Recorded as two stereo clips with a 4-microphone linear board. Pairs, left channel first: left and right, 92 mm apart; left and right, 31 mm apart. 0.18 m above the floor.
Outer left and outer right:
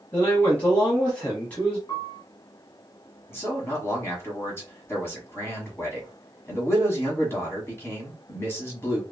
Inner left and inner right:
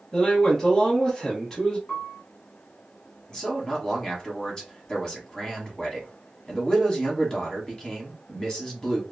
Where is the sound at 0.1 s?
15° left (ahead or behind), 1.1 m.